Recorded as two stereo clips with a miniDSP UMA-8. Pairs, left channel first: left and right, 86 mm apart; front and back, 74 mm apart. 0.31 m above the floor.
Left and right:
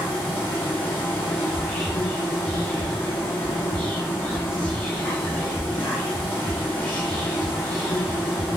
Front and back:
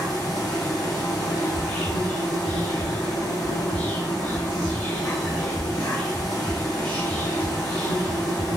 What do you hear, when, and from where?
0.0 s an insect: 30° left, 1.2 m
1.5 s whispering: 40° left, 0.9 m